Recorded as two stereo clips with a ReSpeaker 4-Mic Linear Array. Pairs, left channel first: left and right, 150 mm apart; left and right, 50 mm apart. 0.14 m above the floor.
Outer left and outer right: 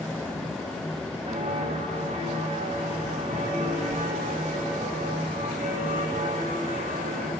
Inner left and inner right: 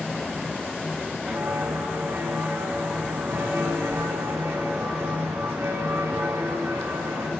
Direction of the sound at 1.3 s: 60° right (ahead or behind).